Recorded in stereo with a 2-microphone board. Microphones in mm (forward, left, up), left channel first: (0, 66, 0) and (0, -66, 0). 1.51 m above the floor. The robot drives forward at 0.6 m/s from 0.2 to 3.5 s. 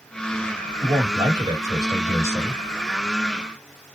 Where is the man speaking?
35° right (ahead or behind), 1.8 m; by 2.6 s 20° right (ahead or behind), 3 m.